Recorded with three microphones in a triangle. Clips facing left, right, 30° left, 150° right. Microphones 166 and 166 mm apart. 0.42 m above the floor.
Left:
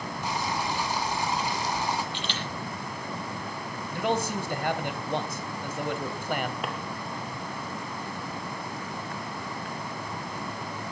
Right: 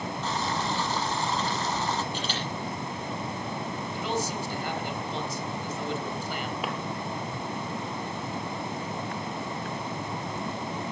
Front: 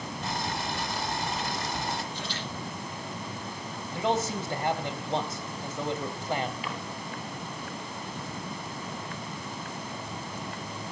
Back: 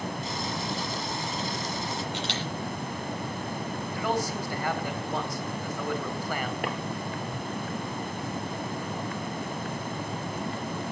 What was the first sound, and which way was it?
Boiling, 15° left.